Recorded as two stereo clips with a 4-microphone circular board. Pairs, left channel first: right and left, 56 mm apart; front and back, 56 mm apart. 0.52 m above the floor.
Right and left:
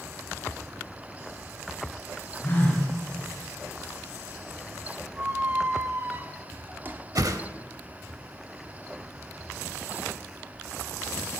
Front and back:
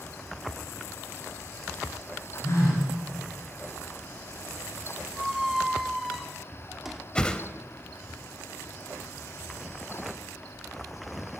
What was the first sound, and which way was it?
A phone buzzing, 35° right.